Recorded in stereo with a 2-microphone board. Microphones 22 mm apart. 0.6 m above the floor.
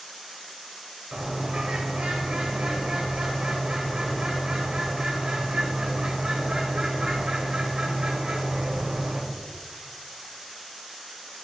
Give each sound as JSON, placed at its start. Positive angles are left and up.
{"t": 1.1, "sound": "a bird", "side_deg": -60, "distance_m": 2.5}